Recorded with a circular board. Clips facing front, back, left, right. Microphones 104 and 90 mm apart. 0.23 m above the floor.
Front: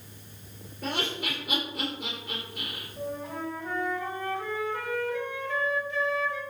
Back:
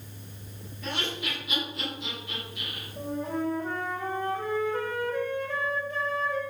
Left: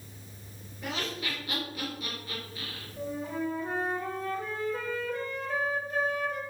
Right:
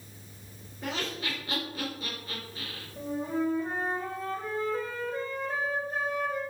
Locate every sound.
0.8 s laughter: 35° right, 4.5 m
3.0 s a flute: 140° right, 4 m